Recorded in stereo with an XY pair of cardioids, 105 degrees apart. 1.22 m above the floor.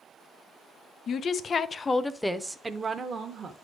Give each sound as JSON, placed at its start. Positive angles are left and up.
{"t": 1.1, "sound": "a woman speaking", "azimuth_deg": 55, "distance_m": 0.9}